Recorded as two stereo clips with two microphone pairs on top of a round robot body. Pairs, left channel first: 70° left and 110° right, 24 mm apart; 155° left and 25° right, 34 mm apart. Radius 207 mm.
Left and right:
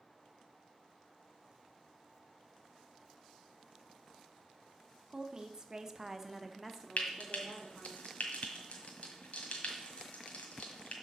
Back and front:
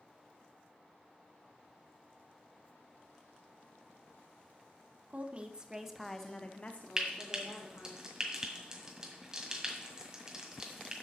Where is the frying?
45° left, 1.5 m.